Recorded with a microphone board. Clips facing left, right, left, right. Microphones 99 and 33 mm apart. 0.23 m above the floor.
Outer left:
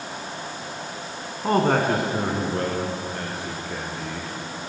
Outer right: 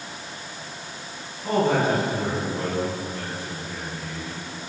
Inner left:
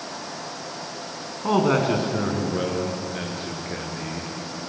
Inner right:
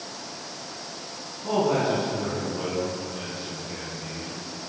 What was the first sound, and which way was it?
A man speaking, 55° left (ahead or behind).